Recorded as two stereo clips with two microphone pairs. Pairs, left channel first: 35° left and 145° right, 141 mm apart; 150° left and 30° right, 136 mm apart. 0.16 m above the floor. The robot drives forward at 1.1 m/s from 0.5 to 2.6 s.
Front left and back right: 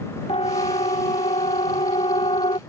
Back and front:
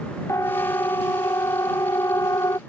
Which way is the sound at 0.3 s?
80° left.